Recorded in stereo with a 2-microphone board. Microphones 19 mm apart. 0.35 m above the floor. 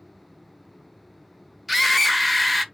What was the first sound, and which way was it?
A scream, centre (ahead or behind).